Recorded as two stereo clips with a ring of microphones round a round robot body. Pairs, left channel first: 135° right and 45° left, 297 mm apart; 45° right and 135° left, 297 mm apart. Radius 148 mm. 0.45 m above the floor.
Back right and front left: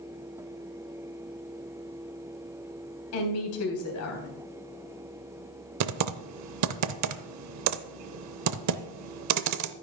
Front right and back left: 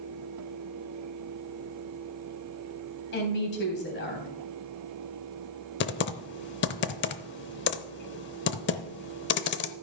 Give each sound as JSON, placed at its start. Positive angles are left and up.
{"t": 3.1, "sound": "a woman speaking", "azimuth_deg": -100, "distance_m": 3.5}
{"t": 5.8, "sound": "typing on a keyboard", "azimuth_deg": 10, "distance_m": 0.6}